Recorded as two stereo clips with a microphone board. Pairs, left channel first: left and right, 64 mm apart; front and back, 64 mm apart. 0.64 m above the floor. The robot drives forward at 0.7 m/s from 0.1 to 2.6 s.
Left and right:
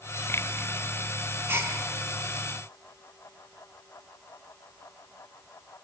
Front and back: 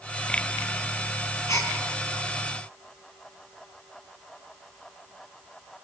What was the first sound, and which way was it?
A gasp, 40° right.